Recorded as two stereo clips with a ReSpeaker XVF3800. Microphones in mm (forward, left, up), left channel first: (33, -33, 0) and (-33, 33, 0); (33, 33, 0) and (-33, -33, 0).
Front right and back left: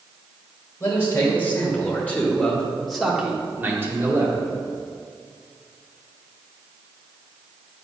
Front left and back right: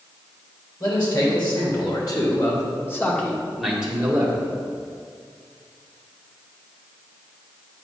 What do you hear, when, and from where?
0.8 s a man speaking: 15° left, 2 m; by 4.5 s 170° left, 1.2 m